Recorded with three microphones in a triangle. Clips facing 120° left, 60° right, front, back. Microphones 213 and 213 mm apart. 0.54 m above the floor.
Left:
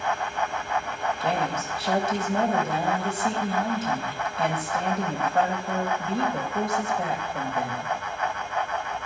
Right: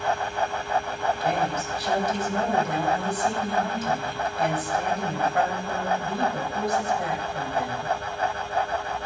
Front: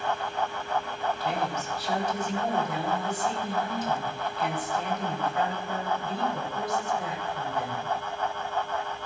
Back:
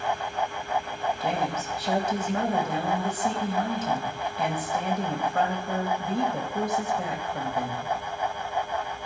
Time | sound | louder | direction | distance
1.2 | a woman speaking | left 2 dB, back 2 dB | straight behind | 3 m